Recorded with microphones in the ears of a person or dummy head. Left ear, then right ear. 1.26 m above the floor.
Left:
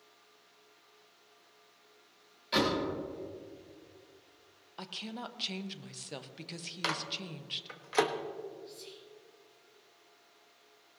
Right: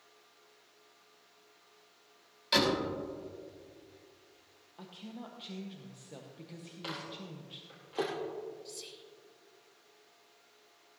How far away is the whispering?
About 3.5 m.